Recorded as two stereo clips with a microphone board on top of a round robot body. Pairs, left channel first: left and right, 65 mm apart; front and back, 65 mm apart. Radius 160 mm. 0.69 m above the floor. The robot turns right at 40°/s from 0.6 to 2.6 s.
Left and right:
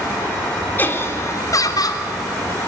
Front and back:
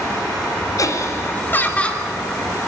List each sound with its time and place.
0.8 s laughter: 30° left, 3 m; by 2.0 s 80° left, 3 m